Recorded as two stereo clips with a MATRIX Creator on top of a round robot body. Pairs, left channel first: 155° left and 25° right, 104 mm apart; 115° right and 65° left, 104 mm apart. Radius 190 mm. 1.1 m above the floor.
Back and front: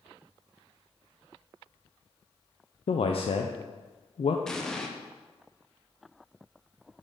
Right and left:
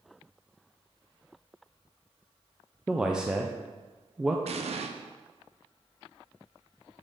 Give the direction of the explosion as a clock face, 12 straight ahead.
10 o'clock.